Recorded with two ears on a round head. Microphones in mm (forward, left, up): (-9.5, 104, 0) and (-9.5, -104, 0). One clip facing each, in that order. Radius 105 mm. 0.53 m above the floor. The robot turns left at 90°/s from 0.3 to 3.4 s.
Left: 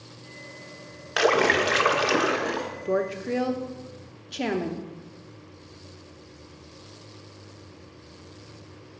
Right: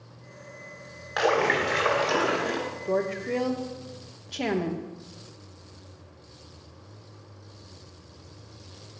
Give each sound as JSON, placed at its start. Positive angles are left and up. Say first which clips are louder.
{"t": 1.2, "sound": "a splash", "louder": "left 3 dB", "azimuth_deg": 130, "distance_m": 0.8}
{"t": 2.9, "sound": "a woman speaking", "louder": "left 1 dB", "side_deg": 15, "distance_m": 0.6}